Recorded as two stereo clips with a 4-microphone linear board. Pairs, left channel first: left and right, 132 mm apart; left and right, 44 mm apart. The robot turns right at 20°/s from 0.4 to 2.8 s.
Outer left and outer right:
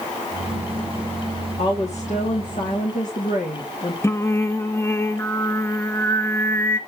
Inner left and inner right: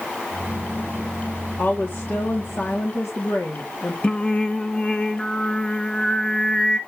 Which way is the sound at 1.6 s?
55° left (ahead or behind).